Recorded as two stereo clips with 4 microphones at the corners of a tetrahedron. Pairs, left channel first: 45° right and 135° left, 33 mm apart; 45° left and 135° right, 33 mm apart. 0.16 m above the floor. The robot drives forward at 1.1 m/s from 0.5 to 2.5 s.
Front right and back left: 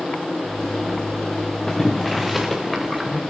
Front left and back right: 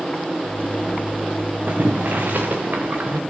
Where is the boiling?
120° right, 2.5 m; by 3.2 s 135° right, 3 m.